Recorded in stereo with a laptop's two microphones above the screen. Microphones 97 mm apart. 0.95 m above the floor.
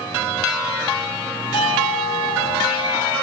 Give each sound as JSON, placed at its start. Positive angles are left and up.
{"t": 1.5, "sound": "a doorbell", "side_deg": 60, "distance_m": 9.0}